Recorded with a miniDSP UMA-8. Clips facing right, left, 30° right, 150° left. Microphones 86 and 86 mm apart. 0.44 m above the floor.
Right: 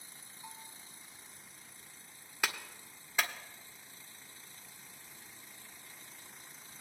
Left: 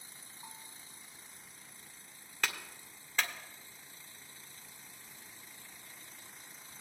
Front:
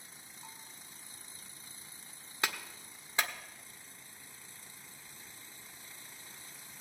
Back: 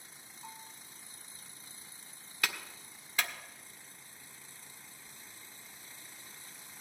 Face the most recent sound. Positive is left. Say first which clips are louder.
# right 1 dB, front 1 dB
turn(degrees=-20)